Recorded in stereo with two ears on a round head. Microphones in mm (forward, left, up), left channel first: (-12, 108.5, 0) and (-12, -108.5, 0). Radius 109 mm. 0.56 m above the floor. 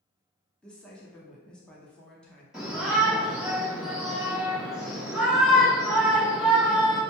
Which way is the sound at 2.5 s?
Centre (ahead or behind).